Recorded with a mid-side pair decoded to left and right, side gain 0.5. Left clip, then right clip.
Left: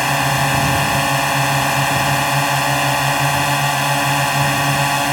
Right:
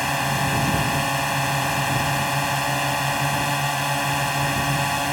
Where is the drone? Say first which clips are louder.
Left 6 dB; 35° left.